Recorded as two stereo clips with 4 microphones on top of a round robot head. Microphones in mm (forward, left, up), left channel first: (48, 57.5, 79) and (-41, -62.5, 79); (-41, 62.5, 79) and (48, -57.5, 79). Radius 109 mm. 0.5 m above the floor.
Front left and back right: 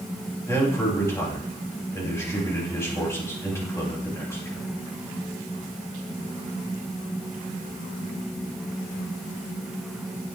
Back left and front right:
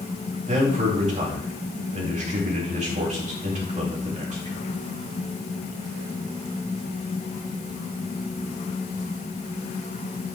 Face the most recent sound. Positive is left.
turn(degrees=-15)